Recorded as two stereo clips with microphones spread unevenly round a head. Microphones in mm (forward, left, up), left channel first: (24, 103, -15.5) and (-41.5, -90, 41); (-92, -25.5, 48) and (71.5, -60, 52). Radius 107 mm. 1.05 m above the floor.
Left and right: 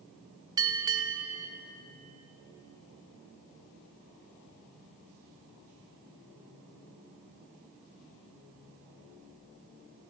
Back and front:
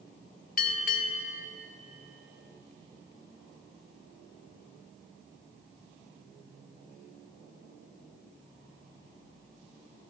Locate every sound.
0.6 s a bell: 165° right, 0.8 m